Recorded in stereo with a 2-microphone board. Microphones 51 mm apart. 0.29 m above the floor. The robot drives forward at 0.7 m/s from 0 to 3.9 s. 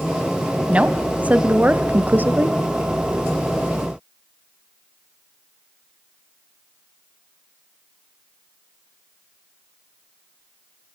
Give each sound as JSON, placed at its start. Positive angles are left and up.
{"t": 0.7, "sound": "a woman speaking", "side_deg": -25, "distance_m": 1.5}